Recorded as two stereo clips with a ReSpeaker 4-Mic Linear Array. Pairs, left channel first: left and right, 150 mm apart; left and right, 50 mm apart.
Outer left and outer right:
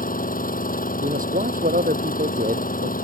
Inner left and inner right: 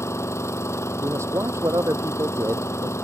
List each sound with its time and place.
0.0 s an engine running: 70° left (ahead or behind)
1.0 s a man speaking: 70° right (ahead or behind)